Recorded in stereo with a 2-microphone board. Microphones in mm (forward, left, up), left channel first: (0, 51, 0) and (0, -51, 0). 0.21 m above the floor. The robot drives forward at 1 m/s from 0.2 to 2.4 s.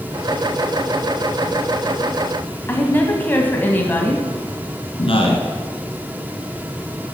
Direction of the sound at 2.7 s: 20° left (ahead or behind).